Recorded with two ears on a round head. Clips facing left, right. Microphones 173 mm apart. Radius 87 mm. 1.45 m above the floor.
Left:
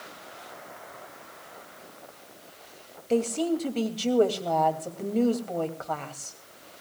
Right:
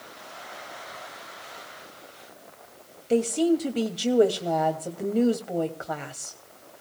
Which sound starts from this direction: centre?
A woman speaking, at 3.1 s.